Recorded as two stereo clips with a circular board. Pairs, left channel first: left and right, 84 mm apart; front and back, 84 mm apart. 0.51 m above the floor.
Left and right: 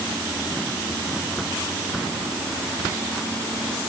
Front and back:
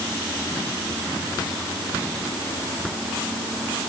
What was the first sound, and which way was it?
Only background noise.